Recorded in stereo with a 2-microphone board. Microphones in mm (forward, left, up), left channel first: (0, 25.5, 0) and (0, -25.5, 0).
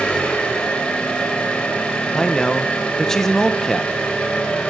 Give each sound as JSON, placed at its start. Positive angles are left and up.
{"t": 0.0, "sound": "an engine running", "side_deg": 20, "distance_m": 4.5}
{"t": 2.1, "sound": "a man speaking", "side_deg": 10, "distance_m": 0.9}